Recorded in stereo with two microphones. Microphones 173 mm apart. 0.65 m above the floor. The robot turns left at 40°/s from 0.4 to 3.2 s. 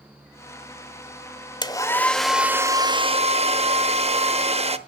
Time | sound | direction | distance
1.6 | a hair dryer | 25° left | 0.6 m